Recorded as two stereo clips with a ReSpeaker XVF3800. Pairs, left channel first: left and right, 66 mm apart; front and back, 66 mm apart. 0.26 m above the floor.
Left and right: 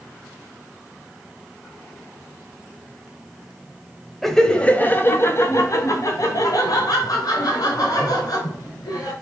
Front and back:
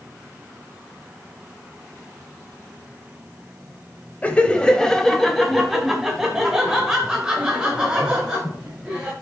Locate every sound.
4.2 s laughter: 10° left, 0.9 m; by 9.1 s 105° left, 3.5 m